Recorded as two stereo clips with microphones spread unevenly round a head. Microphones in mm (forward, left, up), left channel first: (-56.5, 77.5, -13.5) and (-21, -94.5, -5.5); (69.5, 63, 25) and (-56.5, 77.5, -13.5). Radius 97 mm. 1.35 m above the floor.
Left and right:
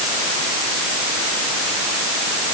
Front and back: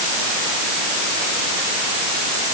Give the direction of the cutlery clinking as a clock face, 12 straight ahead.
I don't hear cutlery clinking.